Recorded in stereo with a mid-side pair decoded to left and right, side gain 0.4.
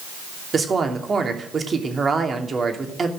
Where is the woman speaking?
45° right, 3 m.